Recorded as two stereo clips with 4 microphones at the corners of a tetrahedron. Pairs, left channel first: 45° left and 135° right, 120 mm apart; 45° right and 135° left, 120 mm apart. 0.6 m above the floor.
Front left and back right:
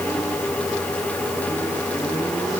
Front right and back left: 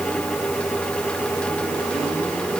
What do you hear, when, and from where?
Only background noise.